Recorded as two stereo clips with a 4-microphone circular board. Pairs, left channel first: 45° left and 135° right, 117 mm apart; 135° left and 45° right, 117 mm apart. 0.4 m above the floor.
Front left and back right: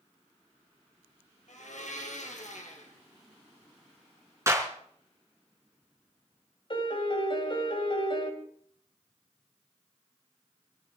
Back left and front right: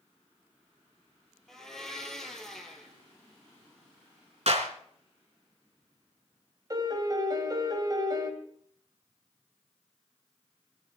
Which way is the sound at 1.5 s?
50° left.